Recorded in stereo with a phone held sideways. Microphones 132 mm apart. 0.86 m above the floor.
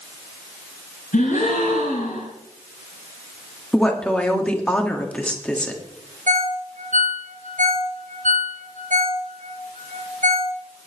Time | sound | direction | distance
1.1 | a gasp | 75° left (ahead or behind) | 6 m
3.7 | a woman speaking | 10° left (ahead or behind) | 2 m
6.3 | a ringtone | 80° right | 2 m